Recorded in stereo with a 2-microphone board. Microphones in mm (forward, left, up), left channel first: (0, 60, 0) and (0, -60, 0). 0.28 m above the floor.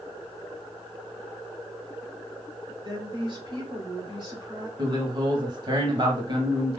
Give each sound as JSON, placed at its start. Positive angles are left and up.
{"t": 2.8, "sound": "a woman speaking", "side_deg": -40, "distance_m": 2.0}
{"t": 4.8, "sound": "a man speaking", "side_deg": -40, "distance_m": 1.3}